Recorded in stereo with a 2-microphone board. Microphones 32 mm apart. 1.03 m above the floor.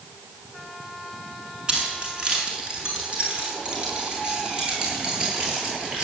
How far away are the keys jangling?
About 6.5 m.